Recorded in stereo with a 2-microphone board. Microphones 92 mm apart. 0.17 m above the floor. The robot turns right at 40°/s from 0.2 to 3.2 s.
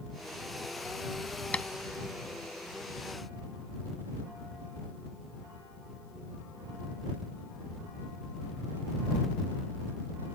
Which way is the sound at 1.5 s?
15° left (ahead or behind).